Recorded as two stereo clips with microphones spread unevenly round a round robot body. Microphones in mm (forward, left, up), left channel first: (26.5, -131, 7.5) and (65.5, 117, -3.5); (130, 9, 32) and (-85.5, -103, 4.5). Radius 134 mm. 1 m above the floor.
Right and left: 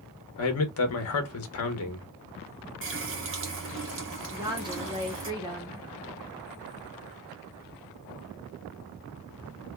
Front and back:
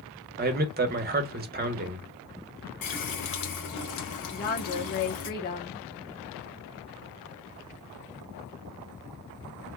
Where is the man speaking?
115° right, 0.8 m.